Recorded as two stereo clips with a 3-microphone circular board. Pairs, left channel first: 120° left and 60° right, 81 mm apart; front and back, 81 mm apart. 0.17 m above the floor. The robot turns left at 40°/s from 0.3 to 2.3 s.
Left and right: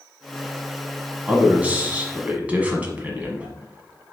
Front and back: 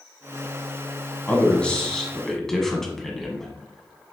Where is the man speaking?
35° right, 1.0 m; by 4.1 s 75° right, 1.0 m.